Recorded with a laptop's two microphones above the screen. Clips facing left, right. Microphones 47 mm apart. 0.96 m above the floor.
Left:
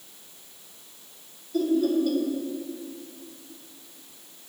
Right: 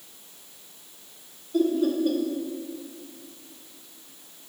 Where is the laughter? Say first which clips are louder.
Even; 30° right (ahead or behind), 1.9 m.